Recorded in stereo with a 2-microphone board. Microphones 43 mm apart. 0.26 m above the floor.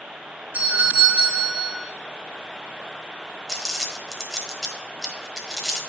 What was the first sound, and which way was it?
A doorbell, 40° right (ahead or behind).